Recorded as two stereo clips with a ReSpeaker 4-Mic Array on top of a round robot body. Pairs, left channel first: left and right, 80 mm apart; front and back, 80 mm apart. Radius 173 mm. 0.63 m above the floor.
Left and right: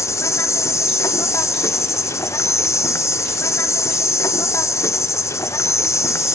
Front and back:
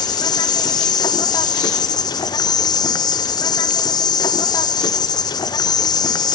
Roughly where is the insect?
Ahead left.